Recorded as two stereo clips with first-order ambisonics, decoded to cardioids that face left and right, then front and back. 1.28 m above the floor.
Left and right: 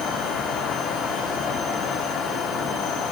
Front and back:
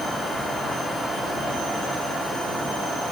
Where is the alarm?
No alarm in this recording.